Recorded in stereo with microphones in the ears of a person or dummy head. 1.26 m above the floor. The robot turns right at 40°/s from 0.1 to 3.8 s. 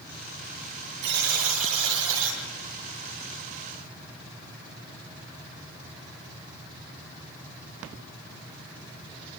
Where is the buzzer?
125° right, 8.5 m; by 2.4 s 70° right, 8.5 m.